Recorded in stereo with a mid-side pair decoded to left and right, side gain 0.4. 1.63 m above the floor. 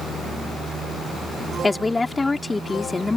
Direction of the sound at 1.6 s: 25° left.